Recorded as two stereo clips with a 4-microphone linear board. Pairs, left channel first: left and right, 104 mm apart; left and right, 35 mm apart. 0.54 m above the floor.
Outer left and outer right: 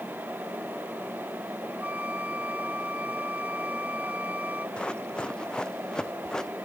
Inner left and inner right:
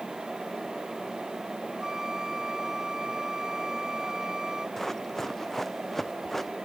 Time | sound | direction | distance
1.8 | a flute | 15° right (ahead or behind) | ?
4.8 | running footsteps | 10° left (ahead or behind) | ?